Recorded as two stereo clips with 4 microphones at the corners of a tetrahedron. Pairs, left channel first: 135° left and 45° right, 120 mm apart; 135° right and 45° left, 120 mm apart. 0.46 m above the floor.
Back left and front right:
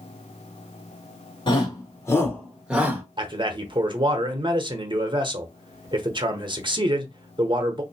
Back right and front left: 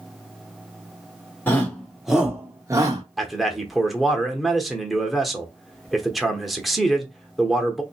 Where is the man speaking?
45° right, 0.9 m.